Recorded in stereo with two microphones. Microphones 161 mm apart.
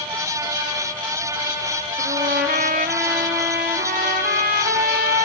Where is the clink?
I don't hear a clink.